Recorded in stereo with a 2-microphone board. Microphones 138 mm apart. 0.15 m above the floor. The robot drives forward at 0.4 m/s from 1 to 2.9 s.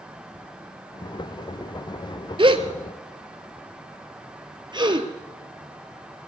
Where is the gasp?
35° right (ahead or behind), 1.2 m; by 5.1 s 30° right (ahead or behind), 1.4 m.